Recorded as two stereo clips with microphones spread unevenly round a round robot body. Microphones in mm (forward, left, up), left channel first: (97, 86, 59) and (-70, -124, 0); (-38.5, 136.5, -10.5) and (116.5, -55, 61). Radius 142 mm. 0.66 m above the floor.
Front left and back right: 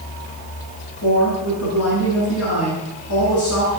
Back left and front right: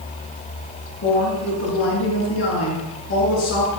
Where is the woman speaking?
95° left, 9 m.